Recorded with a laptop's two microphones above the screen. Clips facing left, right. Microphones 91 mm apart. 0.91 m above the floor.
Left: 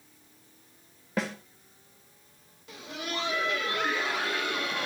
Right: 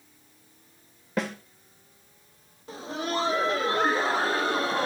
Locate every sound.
1.2 s a snare drum: centre (ahead or behind), 1.9 m
2.7 s laughter: 35° right (ahead or behind), 0.6 m